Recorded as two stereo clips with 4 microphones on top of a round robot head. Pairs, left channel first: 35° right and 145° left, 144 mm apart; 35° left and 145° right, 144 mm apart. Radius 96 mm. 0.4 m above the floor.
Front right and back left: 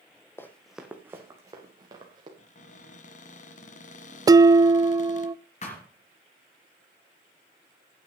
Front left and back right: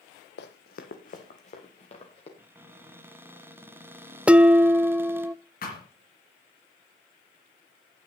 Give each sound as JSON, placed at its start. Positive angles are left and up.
{"t": 0.4, "sound": "running footsteps", "azimuth_deg": 40, "distance_m": 1.1}
{"t": 2.4, "sound": "a cupboard door", "azimuth_deg": -70, "distance_m": 1.2}
{"t": 4.3, "sound": "dishes clattering", "azimuth_deg": 140, "distance_m": 0.5}
{"t": 5.6, "sound": "a thud", "azimuth_deg": 5, "distance_m": 4.0}